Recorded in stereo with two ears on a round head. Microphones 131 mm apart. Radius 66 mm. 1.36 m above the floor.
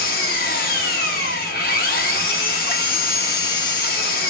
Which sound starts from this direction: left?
An engine running, at 0.0 s.